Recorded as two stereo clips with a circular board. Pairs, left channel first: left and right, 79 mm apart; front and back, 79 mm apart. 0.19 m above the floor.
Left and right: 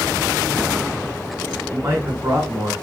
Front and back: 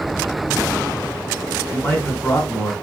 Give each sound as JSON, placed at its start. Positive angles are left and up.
{"t": 1.7, "sound": "a man speaking", "azimuth_deg": -50, "distance_m": 1.6}